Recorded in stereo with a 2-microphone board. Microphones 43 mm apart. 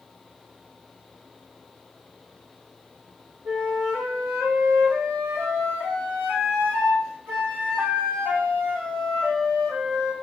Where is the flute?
85° right, 5 m.